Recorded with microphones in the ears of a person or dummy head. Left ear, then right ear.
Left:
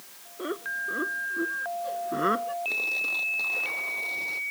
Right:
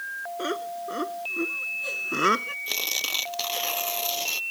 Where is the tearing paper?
85° right.